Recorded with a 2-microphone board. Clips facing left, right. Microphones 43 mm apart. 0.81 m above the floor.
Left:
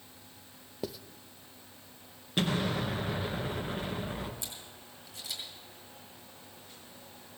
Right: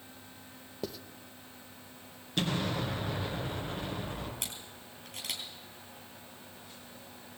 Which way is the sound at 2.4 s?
20° left (ahead or behind).